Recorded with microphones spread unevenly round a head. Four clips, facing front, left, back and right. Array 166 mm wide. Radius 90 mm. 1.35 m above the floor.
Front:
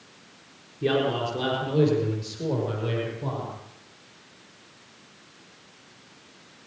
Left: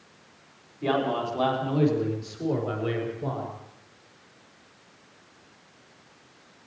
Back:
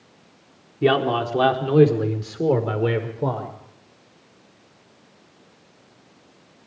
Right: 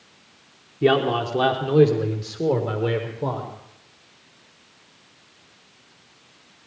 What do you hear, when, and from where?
0.8 s a man speaking: 135° right, 4 m; by 3.5 s 160° right, 5.5 m